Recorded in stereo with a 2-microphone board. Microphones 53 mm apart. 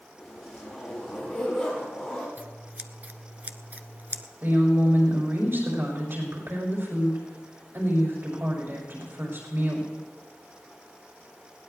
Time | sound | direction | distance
0.2 | a zipper | centre (ahead or behind) | 7.5 m
2.4 | scissors | 30° right (ahead or behind) | 0.9 m
4.4 | a woman speaking | 50° right (ahead or behind) | 7 m